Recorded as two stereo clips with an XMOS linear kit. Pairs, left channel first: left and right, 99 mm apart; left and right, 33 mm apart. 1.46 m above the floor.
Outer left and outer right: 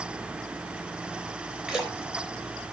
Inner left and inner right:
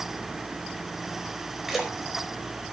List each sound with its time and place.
1.7 s a splash: 10° right (ahead or behind), 3 m